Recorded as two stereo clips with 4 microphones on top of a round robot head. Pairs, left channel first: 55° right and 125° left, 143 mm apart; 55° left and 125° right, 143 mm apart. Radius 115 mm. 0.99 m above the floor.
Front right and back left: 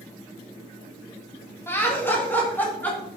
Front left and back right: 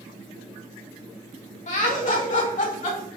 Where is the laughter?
20° left, 3 m; by 3.1 s 25° left, 4 m.